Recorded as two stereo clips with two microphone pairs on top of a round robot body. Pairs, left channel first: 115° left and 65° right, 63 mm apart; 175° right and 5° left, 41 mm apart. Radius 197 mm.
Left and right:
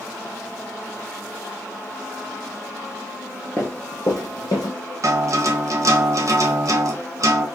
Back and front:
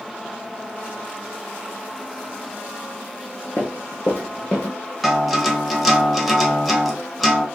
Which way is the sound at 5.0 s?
80° right.